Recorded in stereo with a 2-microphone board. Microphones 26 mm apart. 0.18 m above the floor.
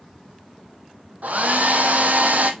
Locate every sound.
1.2 s a hair dryer: 80° right, 1.4 m